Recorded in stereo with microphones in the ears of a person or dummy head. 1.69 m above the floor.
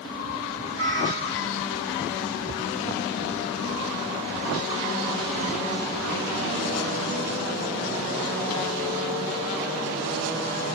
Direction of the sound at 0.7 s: 20° right (ahead or behind).